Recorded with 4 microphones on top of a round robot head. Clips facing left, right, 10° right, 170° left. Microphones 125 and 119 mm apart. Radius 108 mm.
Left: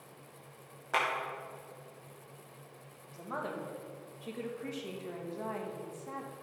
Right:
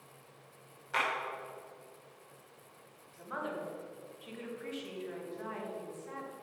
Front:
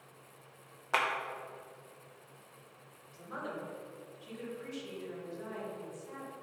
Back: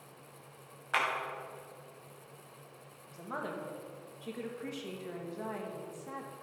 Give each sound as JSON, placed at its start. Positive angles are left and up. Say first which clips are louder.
{"t": 0.9, "sound": "a clap", "louder": "left 2 dB, front 1 dB", "azimuth_deg": 45, "distance_m": 2.5}
{"t": 3.1, "sound": "a woman speaking", "louder": "left 1 dB, back 2 dB", "azimuth_deg": 140, "distance_m": 2.0}